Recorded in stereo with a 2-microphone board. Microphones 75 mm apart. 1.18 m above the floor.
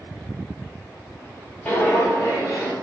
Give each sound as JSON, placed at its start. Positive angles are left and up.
{"t": 1.6, "sound": "footsteps", "side_deg": 20, "distance_m": 1.4}